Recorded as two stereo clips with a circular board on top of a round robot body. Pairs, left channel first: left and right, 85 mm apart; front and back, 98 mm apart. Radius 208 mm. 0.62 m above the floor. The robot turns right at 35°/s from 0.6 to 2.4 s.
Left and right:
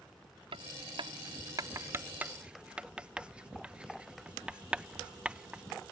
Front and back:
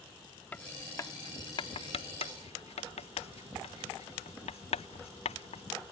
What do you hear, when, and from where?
0.5 s writing: 75° right; by 5.6 s 10° right